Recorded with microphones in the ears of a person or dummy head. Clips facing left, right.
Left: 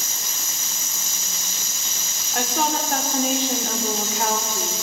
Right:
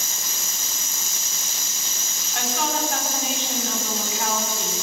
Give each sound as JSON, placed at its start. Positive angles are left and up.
{"t": 2.3, "sound": "a woman speaking", "side_deg": 40, "distance_m": 4.5}